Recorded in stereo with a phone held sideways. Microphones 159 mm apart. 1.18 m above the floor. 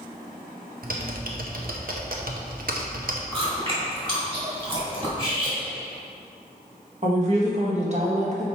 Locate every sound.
0.8 s typing on a keyboard: 65° right (ahead or behind), 0.8 m
3.3 s chewing: 35° right (ahead or behind), 2 m
5.2 s cutlery clinking: 35° right (ahead or behind), 1.8 m
7.0 s a woman speaking: 45° right (ahead or behind), 1.5 m